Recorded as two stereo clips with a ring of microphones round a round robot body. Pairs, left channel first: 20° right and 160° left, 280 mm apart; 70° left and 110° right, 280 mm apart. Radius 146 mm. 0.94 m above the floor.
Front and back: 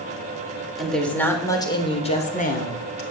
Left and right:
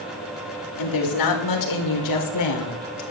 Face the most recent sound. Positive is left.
turn(degrees=35)